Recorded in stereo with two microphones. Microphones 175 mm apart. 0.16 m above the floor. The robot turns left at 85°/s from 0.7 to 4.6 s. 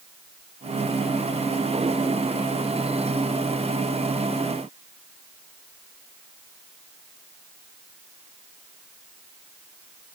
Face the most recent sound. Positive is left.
No sound to turn to.